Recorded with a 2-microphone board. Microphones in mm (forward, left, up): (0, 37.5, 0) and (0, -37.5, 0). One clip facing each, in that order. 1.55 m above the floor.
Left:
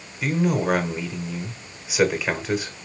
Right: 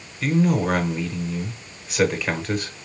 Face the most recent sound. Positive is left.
turn(degrees=5)  # may be behind; listen again after turning